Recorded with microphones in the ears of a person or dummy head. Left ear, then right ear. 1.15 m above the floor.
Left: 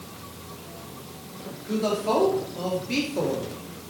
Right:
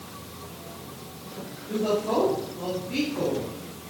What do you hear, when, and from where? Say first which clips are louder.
1.7 s a woman speaking: left 1 dB; 65° left (ahead or behind), 2 m; by 3.9 s 85° left, 1.7 m